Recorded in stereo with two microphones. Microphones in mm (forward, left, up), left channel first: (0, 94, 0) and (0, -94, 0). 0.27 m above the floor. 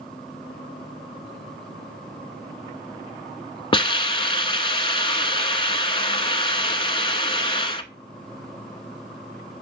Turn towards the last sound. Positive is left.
turn(degrees=25)  # may be behind; listen again after turning